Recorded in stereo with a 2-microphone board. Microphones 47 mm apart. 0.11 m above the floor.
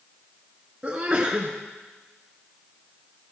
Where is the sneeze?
20° right (ahead or behind), 1.4 m.